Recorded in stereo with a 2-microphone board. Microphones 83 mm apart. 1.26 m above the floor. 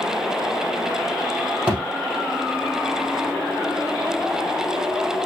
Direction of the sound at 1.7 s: 20° right (ahead or behind).